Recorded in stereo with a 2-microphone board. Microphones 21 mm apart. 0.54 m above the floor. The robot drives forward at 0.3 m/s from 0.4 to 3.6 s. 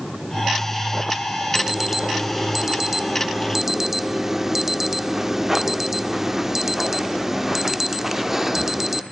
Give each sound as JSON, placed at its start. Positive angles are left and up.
{"t": 1.6, "sound": "an alarm", "side_deg": -5, "distance_m": 1.6}